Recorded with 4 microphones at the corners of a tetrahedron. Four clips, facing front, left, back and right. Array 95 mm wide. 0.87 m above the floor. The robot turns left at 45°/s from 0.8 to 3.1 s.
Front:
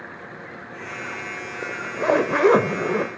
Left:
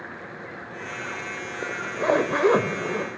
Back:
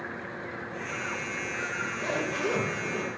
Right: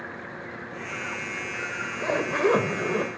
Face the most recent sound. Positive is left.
turn(degrees=-20)